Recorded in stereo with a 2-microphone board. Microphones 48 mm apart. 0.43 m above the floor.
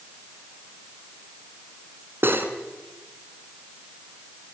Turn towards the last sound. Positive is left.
turn(degrees=-50)  # may be behind; listen again after turning